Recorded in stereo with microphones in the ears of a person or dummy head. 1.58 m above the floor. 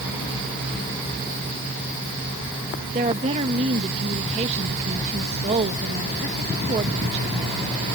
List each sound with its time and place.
2.9 s a woman speaking: 35° right (ahead or behind)